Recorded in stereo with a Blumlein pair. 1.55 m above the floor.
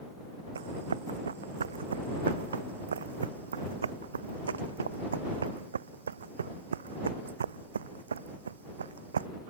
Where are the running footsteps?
70° right.